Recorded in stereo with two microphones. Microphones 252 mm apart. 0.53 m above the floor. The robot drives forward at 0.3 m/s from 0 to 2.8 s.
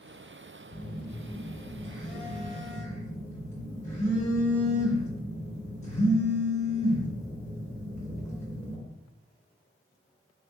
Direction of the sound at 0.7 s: 40° left (ahead or behind).